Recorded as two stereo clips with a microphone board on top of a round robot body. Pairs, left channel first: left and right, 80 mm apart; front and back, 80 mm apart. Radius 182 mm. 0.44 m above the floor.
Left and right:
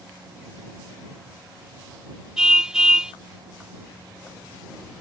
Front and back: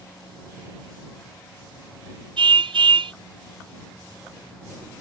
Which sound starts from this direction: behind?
A car horn, at 2.4 s.